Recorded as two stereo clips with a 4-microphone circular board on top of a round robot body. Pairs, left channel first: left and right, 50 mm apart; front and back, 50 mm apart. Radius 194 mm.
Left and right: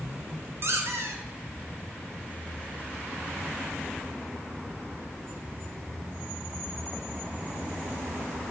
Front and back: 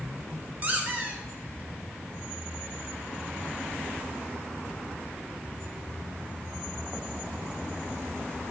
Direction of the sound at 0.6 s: 120° right.